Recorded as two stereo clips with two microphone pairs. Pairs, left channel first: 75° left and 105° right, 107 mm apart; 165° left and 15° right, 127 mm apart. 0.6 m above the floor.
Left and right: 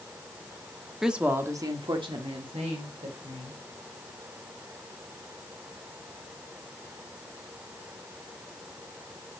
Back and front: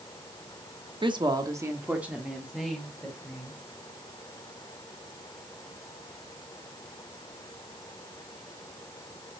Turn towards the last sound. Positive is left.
turn(degrees=-110)